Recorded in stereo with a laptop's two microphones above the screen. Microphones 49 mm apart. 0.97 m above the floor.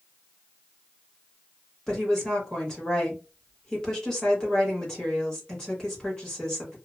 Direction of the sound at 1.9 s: 15° left (ahead or behind).